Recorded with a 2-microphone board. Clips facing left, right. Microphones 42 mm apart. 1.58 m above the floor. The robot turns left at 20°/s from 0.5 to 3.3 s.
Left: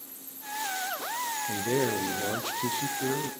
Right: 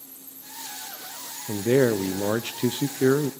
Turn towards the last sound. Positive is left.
turn(degrees=-70)